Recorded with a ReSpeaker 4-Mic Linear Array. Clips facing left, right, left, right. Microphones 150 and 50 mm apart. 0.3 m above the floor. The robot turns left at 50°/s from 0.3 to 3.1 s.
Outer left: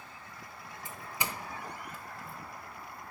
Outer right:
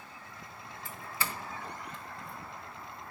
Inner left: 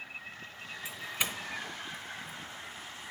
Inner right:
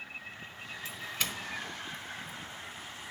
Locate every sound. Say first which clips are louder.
0.8 s a doorbell: even, inner left 1 dB; 20° left (ahead or behind), 1.3 m; by 2.4 s centre (ahead or behind), 1.3 m